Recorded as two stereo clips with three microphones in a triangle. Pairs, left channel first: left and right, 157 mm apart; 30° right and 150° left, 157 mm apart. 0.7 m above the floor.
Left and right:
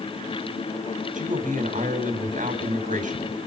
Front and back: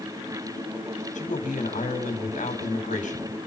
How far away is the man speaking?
About 4.5 m.